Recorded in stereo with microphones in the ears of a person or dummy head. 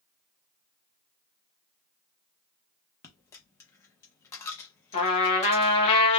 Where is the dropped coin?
15° left (ahead or behind), 0.8 m.